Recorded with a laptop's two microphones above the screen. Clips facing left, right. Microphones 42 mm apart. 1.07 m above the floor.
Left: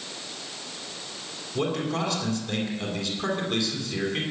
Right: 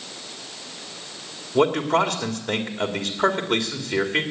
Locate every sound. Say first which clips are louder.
1.6 s a man speaking: right 8 dB; 80° right, 2.5 m